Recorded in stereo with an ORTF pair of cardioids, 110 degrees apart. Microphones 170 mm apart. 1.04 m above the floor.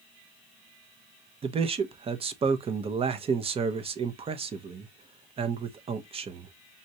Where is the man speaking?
35° right, 0.8 m.